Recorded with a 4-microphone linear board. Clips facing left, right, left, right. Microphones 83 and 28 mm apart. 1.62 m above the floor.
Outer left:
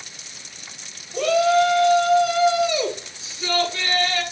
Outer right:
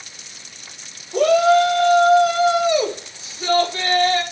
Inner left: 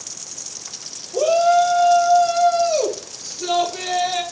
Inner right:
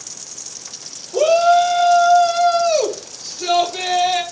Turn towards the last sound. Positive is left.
turn(degrees=-45)  # may be behind; listen again after turning